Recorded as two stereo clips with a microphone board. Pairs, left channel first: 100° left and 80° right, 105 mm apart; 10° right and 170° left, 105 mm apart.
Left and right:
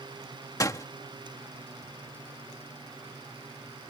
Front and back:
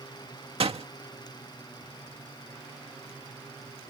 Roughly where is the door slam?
Behind left.